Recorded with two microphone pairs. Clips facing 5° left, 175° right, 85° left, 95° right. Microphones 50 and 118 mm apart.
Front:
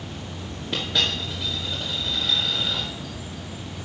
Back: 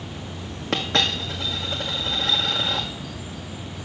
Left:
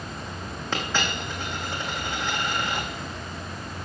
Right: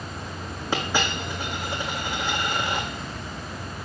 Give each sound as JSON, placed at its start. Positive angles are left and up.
{"t": 0.7, "sound": "a dropped coin", "azimuth_deg": -175, "distance_m": 1.7}